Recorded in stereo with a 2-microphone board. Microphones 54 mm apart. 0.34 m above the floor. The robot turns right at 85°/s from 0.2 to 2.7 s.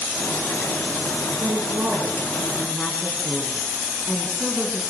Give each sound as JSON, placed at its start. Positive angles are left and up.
{"t": 1.4, "sound": "a woman speaking", "azimuth_deg": -90, "distance_m": 4.0}